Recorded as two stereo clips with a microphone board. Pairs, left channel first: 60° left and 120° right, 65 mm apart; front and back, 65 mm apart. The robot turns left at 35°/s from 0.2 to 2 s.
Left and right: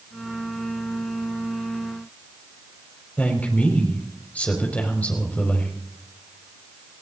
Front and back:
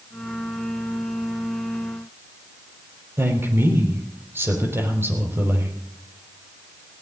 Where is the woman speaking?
130° left, 5 m.